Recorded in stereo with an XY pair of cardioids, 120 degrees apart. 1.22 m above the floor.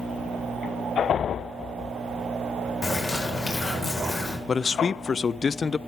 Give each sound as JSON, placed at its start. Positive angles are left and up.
{"t": 2.8, "sound": "a bird", "azimuth_deg": 25, "distance_m": 4.5}
{"t": 4.5, "sound": "a man speaking", "azimuth_deg": 30, "distance_m": 0.5}